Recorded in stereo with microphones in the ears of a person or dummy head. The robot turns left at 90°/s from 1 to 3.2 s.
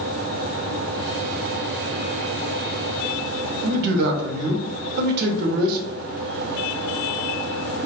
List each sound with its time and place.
3.6 s a man speaking: 55° right (ahead or behind), 0.6 m